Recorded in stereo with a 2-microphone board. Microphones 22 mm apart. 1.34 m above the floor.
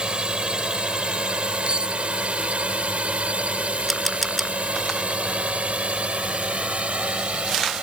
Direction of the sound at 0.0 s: 50° right (ahead or behind).